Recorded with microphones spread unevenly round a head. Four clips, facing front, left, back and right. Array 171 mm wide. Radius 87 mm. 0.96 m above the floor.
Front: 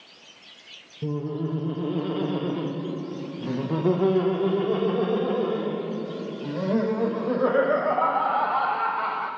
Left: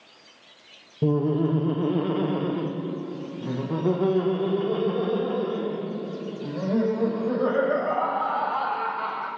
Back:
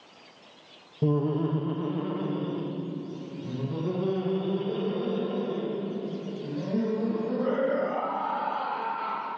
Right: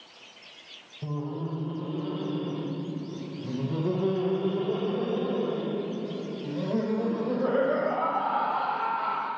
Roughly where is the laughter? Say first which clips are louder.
Left 11 dB, back 3 dB; left.